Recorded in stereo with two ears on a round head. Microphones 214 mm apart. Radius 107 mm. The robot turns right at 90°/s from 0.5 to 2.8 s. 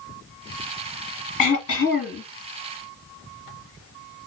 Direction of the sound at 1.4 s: 90° left.